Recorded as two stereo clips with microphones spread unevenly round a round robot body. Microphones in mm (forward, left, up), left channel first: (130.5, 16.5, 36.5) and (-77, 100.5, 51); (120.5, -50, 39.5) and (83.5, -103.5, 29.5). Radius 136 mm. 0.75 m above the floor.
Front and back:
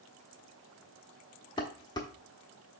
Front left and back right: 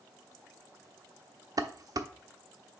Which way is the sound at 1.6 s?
95° right.